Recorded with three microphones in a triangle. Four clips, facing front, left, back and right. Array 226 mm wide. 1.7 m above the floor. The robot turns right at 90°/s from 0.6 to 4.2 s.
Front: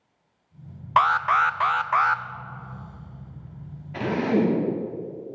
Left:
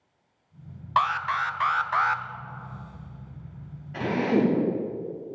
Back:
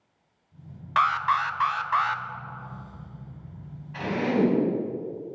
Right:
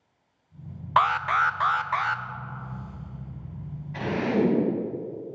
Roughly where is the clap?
No clap in this recording.